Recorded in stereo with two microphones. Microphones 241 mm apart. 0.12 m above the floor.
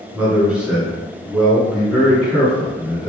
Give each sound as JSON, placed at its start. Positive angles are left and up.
{"t": 0.1, "sound": "a man speaking", "side_deg": -5, "distance_m": 1.5}